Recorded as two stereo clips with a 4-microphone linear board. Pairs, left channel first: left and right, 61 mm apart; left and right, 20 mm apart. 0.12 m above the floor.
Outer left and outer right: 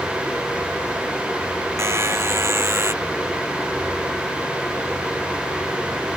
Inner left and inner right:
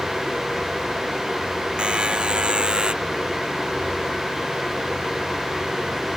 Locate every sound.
1.8 s a buzzer: 45° right (ahead or behind)